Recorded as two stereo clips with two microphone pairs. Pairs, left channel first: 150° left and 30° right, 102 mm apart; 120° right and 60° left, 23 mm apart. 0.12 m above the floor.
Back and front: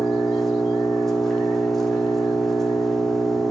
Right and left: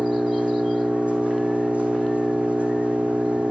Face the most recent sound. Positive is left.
turn(degrees=65)